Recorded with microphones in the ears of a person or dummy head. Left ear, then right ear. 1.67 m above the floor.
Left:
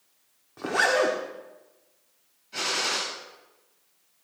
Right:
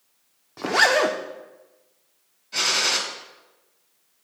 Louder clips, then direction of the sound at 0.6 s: Right 4 dB; 20° right (ahead or behind).